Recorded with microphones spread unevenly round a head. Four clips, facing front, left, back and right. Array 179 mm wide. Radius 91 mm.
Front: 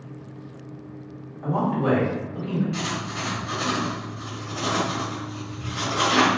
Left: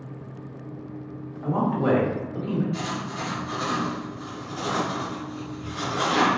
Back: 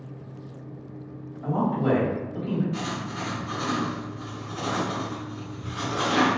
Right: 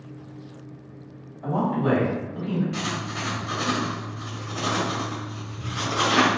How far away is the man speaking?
About 1.2 m.